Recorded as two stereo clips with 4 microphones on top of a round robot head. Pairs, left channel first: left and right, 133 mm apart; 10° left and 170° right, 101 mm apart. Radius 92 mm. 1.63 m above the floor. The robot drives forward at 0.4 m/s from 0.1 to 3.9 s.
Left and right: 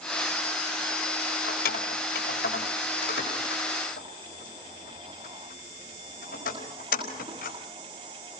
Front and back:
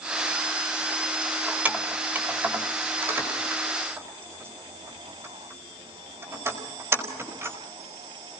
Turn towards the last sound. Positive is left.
turn(degrees=125)